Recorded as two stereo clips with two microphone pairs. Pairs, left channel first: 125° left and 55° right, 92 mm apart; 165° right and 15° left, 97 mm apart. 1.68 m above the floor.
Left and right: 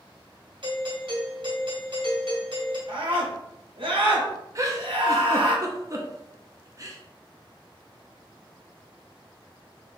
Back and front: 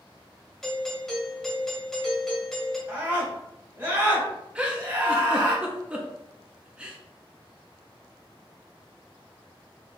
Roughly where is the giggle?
Ahead right.